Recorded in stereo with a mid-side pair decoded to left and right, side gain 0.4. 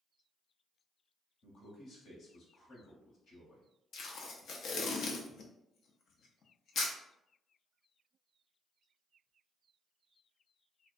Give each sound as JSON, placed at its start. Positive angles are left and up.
{"t": 1.4, "sound": "a man speaking", "azimuth_deg": 65, "distance_m": 1.1}
{"t": 3.9, "sound": "tape being pulled", "azimuth_deg": 70, "distance_m": 0.5}